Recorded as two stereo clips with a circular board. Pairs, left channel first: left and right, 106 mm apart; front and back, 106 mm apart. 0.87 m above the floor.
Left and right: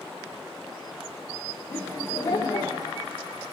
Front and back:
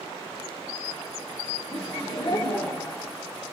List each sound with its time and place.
1.7 s laughter: 20° left, 3 m; by 3.1 s 60° left, 2.5 m